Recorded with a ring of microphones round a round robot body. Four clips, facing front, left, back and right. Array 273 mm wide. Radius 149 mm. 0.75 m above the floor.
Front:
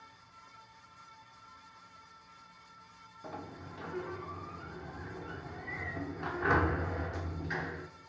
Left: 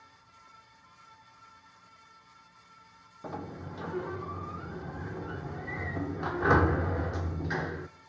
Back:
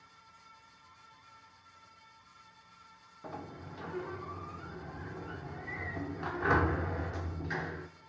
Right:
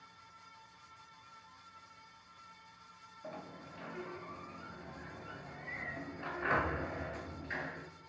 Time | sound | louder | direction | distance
3.2 | a sliding door | left 8 dB, even | 90° left | 0.6 m